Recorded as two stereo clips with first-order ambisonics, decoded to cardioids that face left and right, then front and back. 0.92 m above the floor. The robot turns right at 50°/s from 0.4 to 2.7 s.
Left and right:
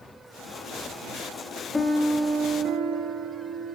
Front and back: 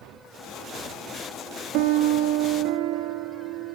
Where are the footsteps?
I don't hear footsteps.